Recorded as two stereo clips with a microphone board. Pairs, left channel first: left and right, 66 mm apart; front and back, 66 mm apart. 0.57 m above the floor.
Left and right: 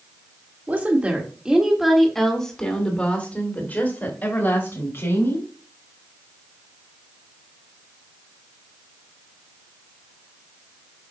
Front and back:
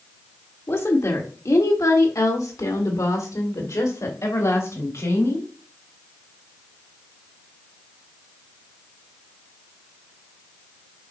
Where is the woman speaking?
40° right, 1.7 m; by 5.5 s 40° left, 3.5 m.